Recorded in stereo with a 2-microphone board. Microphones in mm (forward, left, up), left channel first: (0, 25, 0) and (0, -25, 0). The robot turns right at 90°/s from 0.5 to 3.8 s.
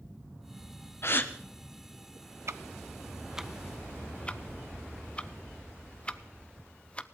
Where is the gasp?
55° left (ahead or behind), 1.1 m; by 1.3 s 30° left (ahead or behind), 1.1 m.